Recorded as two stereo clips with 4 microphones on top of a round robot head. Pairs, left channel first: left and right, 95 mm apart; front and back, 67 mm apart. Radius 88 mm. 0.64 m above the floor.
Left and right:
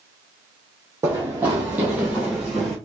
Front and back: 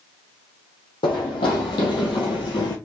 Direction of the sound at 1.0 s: 15° right.